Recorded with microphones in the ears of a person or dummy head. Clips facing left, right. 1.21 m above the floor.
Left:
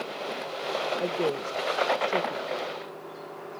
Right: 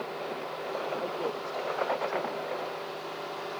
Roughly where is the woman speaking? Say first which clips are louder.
Left 5 dB; left.